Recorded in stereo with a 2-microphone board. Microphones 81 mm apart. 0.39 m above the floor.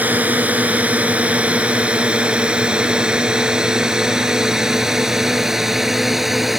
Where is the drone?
20° right (ahead or behind); by 6.6 s centre (ahead or behind).